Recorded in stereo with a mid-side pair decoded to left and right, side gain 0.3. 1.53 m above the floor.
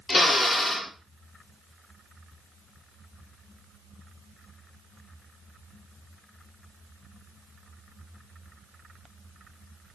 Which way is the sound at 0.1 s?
60° left.